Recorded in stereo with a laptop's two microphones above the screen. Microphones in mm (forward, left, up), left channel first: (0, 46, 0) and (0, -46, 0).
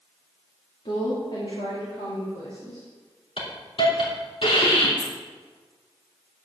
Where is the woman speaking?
65° left (ahead or behind), 2.5 m; by 2.9 s 75° left (ahead or behind), 3.5 m.